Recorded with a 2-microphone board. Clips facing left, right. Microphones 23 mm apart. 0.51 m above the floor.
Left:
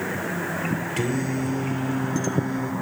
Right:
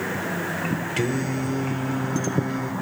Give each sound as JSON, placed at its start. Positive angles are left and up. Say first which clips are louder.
{"t": 1.0, "sound": "singing", "louder": "right 1 dB", "side_deg": -20, "distance_m": 1.8}